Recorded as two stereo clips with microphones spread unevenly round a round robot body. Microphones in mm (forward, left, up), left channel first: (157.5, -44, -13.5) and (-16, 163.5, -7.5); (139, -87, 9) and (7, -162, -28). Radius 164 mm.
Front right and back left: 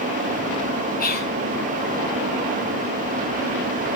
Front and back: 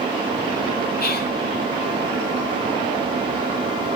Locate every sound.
1.0 s whispering: 5° left, 3.5 m